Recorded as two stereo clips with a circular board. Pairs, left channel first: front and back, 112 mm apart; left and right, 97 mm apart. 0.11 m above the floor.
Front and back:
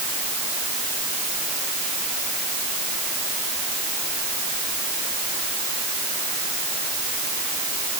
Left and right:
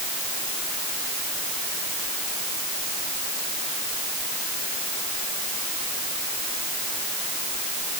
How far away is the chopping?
I don't hear chopping.